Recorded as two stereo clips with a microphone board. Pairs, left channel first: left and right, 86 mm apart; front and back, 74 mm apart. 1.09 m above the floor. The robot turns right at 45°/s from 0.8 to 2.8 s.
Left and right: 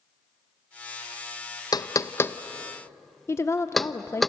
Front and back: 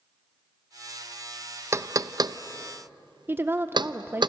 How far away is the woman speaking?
About 0.8 m.